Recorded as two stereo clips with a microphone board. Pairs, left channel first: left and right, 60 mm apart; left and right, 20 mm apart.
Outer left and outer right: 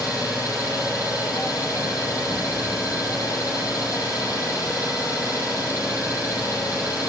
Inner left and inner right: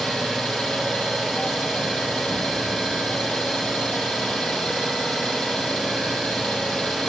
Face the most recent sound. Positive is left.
turn(degrees=75)  # may be behind; listen again after turning